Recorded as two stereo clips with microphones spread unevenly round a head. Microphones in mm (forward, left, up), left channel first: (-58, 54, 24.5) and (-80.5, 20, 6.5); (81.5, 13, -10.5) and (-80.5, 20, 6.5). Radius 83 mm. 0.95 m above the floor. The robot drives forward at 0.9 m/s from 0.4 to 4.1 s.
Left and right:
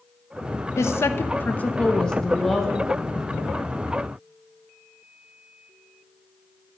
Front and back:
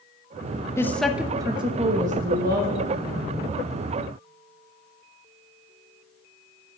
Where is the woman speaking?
65° left, 1.0 m; by 3.5 s 160° left, 2.5 m.